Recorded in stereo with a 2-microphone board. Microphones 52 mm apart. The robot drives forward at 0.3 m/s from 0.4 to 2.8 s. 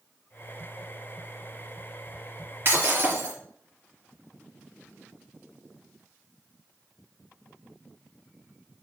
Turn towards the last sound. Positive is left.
turn(degrees=-40)  # may be behind; listen again after turning